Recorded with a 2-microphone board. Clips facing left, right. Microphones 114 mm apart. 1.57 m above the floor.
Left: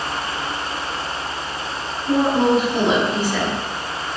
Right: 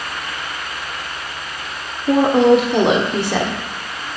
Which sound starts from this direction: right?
A woman speaking, at 2.1 s.